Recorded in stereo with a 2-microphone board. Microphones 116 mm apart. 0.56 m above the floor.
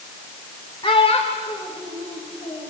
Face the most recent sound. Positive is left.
turn(degrees=80)